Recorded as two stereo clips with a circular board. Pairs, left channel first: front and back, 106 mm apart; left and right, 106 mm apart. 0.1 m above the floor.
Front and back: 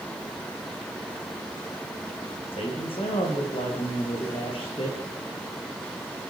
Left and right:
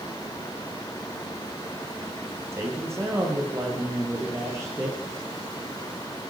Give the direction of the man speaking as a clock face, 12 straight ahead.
1 o'clock.